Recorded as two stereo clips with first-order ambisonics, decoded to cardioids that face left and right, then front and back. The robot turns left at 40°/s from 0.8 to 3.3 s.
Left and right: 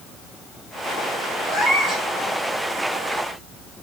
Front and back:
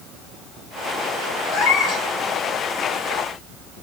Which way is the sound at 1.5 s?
25° left.